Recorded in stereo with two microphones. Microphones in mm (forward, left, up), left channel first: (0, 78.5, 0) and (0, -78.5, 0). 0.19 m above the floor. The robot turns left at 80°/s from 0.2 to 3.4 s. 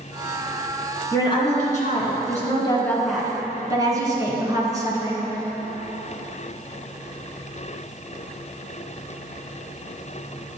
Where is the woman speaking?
160° left, 1.8 m; by 5.4 s 25° right, 1.8 m.